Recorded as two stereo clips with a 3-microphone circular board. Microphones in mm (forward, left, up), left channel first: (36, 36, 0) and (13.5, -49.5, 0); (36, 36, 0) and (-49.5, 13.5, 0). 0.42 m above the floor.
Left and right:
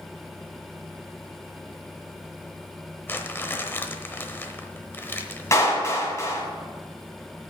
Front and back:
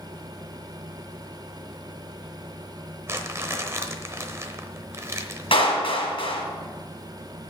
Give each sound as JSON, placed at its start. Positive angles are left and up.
{"t": 3.1, "sound": "crumpling", "azimuth_deg": 135, "distance_m": 0.9}
{"t": 5.5, "sound": "a clap", "azimuth_deg": 20, "distance_m": 2.5}